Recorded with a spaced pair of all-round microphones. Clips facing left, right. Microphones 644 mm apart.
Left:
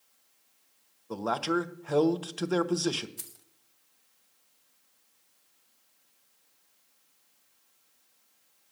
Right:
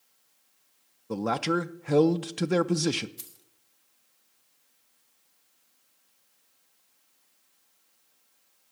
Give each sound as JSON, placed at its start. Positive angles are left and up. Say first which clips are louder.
{"t": 1.1, "sound": "a man speaking", "louder": "right 2 dB", "side_deg": -50, "distance_m": 0.6}
{"t": 3.2, "sound": "keys jangling", "louder": "left 1 dB", "side_deg": 70, "distance_m": 1.1}